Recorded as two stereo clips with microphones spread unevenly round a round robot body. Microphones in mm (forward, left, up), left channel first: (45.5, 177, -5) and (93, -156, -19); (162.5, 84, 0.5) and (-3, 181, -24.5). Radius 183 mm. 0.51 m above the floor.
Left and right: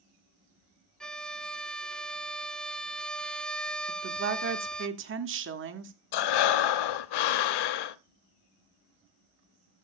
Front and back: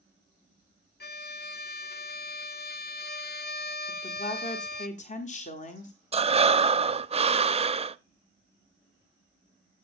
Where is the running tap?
I don't hear a running tap.